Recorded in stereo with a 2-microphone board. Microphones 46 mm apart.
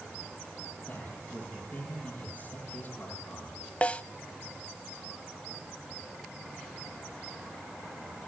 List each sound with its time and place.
0.9 s a man speaking: 30° left (ahead or behind), 9.5 m
3.8 s a snare drum: 30° left (ahead or behind), 0.5 m